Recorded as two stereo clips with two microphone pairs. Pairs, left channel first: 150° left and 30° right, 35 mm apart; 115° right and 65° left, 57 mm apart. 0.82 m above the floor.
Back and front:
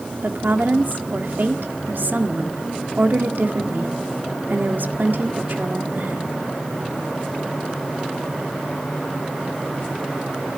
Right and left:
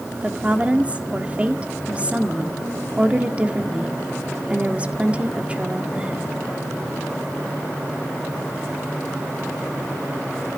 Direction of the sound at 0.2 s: 5° right.